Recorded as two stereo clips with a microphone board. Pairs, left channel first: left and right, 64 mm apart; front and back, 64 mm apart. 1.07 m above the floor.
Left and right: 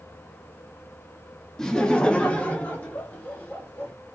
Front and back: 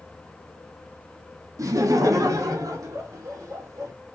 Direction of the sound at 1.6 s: 170° left.